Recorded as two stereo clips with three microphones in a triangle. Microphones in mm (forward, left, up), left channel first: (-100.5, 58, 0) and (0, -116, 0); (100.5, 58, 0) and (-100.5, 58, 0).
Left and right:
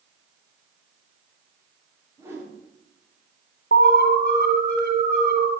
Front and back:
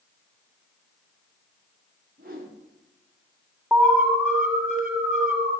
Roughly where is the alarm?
Left.